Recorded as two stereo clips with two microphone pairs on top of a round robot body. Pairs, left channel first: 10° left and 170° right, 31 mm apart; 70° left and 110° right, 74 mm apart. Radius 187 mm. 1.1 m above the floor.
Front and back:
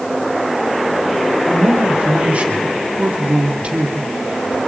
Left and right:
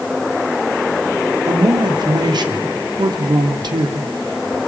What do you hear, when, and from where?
1.5 s a man speaking: 125° right, 3 m